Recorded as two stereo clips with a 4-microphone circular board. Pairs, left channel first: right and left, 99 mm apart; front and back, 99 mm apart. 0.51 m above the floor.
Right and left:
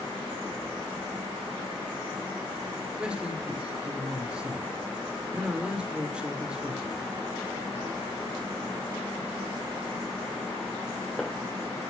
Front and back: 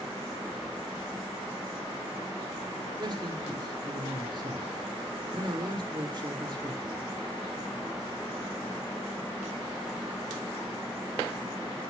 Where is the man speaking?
165° left, 1.8 m.